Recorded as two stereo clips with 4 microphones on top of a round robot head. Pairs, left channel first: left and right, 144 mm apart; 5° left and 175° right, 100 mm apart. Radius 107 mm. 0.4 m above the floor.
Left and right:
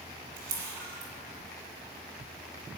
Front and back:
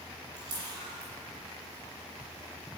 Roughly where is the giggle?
No giggle in this recording.